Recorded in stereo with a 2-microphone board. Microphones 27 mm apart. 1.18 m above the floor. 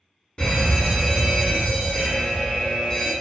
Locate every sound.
0.4 s a fire alarm: 30° left (ahead or behind), 1.1 m